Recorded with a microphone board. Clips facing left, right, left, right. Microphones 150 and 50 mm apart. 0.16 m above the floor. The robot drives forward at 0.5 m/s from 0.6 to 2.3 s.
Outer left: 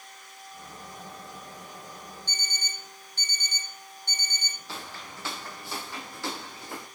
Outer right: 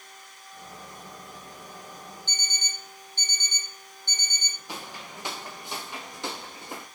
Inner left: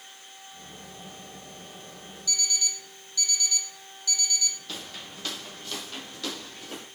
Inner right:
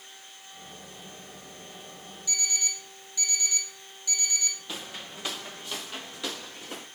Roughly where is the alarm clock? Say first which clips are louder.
Even, inner left 1 dB; right.